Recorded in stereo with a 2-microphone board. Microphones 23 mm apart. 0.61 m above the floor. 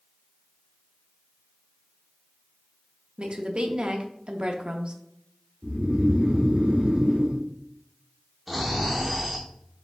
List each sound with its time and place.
3.2 s a woman speaking: 50° right (ahead or behind), 0.8 m
5.6 s snoring: 80° right, 2 m
8.5 s snoring: 10° right (ahead or behind), 1.1 m